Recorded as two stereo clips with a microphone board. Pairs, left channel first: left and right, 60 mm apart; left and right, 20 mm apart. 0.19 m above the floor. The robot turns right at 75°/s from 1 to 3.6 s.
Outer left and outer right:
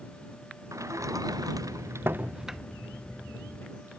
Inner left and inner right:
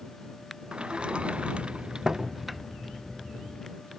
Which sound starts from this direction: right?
A sliding door, at 0.7 s.